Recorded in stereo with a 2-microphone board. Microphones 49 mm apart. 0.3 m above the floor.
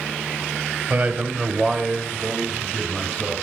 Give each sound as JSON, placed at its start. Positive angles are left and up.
{"t": 0.9, "sound": "a man speaking", "side_deg": -25, "distance_m": 1.2}